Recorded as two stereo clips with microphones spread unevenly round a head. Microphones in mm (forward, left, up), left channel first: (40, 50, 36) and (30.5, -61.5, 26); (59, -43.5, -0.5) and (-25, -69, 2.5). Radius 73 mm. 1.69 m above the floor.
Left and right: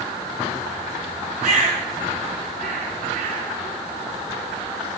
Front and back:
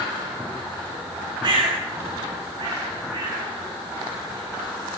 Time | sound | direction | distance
1.4 | a bird | 135° right | 9 m